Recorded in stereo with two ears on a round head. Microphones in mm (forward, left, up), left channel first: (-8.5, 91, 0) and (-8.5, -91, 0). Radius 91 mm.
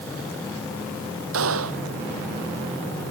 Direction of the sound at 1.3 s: 75° right (ahead or behind).